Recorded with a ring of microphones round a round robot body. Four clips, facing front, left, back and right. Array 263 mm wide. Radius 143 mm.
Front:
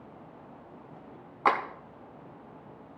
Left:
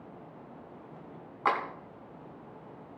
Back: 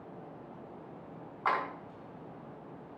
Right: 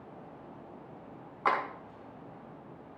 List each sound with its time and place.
1.4 s a clap: straight ahead, 3.5 m